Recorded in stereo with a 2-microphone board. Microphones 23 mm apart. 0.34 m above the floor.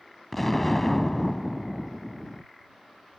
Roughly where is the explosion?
Centre.